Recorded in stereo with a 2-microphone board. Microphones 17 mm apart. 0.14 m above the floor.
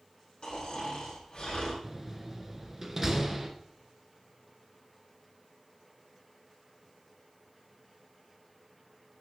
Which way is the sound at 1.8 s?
15° right (ahead or behind).